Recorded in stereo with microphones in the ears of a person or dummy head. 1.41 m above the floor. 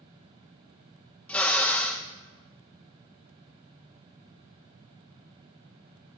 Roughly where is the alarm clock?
I don't hear an alarm clock.